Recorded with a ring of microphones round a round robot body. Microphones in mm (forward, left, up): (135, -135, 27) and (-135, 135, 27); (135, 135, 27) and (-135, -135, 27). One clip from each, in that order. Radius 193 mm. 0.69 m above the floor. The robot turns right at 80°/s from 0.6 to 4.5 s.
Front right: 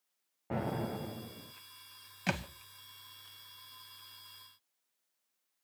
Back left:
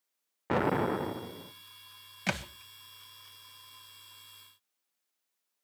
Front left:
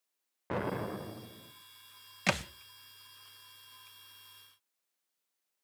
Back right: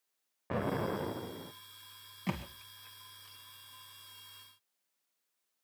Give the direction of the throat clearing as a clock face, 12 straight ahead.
No throat clearing in this recording.